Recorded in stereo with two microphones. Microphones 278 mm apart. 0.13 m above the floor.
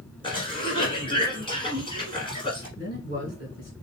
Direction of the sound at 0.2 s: 20° left (ahead or behind).